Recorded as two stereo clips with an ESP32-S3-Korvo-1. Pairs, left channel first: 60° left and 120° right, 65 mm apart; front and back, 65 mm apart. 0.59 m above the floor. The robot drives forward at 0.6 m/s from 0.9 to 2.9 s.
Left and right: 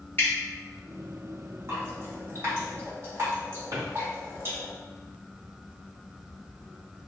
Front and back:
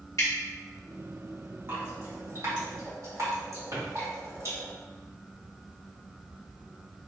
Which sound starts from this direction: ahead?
Dripping, at 0.2 s.